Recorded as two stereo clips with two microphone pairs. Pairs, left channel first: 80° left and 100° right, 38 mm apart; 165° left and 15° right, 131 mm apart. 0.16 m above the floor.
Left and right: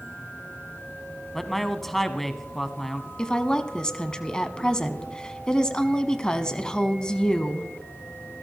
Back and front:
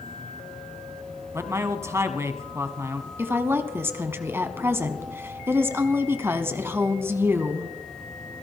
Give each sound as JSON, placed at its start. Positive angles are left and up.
{"t": 0.0, "sound": "an insect", "azimuth_deg": 80, "distance_m": 8.5}
{"t": 1.3, "sound": "a man speaking", "azimuth_deg": 5, "distance_m": 1.0}
{"t": 3.2, "sound": "a woman speaking", "azimuth_deg": 35, "distance_m": 1.1}